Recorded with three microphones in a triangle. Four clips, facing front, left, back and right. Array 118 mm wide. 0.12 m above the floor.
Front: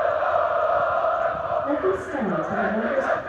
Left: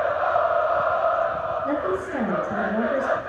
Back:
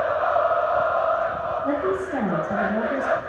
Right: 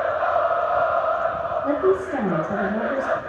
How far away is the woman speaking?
About 5 m.